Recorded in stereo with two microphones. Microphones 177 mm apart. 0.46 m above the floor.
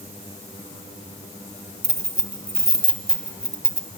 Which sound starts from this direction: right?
Keys jangling, at 1.8 s.